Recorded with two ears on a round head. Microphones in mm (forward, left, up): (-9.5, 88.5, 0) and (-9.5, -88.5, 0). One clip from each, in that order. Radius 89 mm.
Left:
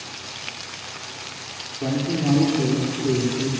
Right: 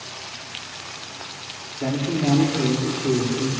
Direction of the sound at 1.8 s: 85° right.